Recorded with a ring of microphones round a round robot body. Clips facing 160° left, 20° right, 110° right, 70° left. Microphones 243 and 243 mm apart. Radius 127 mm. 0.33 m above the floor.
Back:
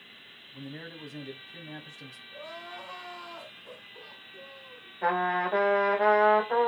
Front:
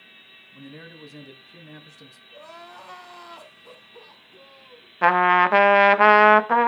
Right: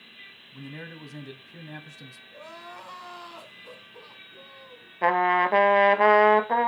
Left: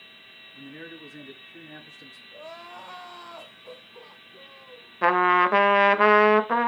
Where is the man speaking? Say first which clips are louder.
Even, even; 95° right, 2.5 m.